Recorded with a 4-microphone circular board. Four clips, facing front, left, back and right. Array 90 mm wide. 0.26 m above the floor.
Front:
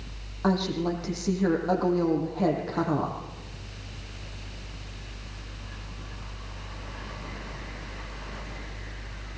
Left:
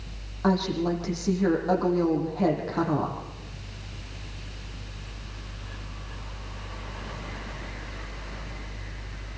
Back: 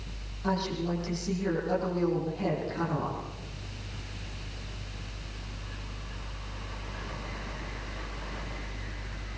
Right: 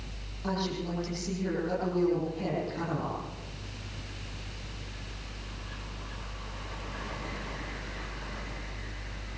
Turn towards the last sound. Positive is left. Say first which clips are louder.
# left 8 dB, front 4 dB
turn(degrees=45)